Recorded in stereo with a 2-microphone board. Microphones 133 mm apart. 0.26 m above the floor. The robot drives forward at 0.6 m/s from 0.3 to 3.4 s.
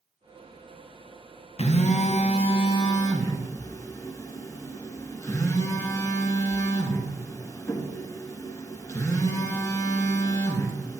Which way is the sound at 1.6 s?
55° left (ahead or behind).